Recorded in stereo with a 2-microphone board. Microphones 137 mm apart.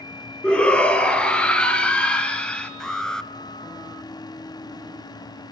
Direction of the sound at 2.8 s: 5° left (ahead or behind).